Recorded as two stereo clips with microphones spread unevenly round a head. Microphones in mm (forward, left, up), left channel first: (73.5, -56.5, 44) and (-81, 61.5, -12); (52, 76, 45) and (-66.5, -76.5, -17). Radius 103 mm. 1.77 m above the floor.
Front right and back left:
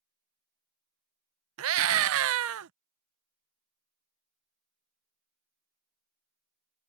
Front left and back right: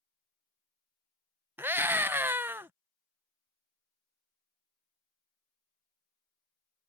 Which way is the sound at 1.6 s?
140° left.